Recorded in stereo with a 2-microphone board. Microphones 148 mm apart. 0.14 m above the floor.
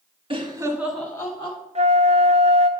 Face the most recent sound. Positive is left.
turn(degrees=-50)  # may be behind; listen again after turning